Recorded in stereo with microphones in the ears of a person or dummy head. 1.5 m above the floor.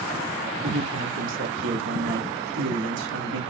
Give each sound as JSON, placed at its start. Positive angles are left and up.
{"t": 0.6, "sound": "a man speaking", "side_deg": -70, "distance_m": 3.5}